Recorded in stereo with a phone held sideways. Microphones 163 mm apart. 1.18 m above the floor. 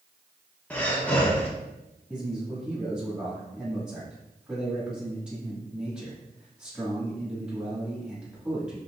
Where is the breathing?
10° left (ahead or behind), 0.9 m.